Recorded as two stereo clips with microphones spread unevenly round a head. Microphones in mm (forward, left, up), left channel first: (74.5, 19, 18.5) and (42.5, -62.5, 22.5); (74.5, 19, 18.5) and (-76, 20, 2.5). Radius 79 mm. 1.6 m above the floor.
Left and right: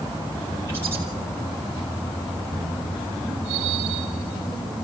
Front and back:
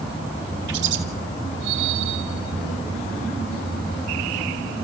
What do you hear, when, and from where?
0.7 s a bird: 175° left, 2.5 m